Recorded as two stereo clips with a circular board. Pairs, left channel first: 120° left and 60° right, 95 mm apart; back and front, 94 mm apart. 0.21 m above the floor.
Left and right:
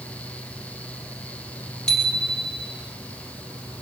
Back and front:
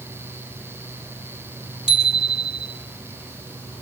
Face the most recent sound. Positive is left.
turn(degrees=-160)